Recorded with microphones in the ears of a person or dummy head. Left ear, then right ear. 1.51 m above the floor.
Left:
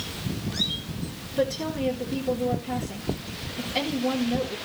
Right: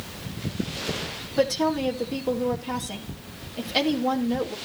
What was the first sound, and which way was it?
A woman speaking, 75° right (ahead or behind).